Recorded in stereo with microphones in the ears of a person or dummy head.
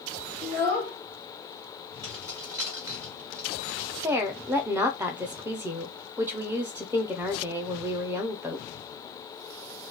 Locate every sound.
0.4 s a child speaking: 55° right (ahead or behind), 0.9 m
2.0 s keys jangling: 15° right (ahead or behind), 1.6 m
4.0 s a woman speaking: 10° right (ahead or behind), 0.7 m